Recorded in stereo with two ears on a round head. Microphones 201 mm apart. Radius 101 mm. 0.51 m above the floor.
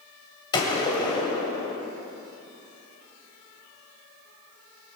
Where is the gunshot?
20° left (ahead or behind), 2.5 m.